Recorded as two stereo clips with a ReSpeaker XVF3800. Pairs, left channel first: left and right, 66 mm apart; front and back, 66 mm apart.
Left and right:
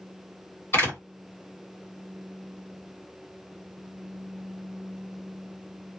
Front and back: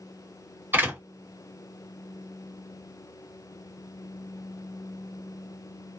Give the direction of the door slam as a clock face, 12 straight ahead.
8 o'clock.